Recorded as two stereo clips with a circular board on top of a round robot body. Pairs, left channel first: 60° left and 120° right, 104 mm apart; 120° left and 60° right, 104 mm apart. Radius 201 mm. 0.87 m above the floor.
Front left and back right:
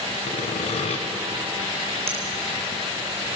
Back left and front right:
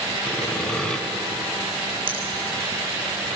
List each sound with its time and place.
0.3 s sawing: 40° left, 1.9 m
2.1 s a finger snap: 95° right, 3.5 m